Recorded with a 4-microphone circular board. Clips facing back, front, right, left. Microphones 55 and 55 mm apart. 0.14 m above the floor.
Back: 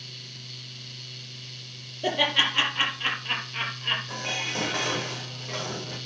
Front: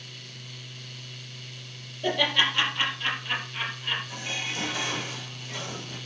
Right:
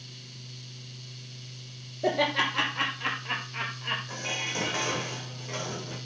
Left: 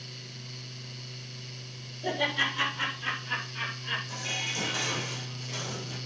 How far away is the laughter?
About 4.5 m.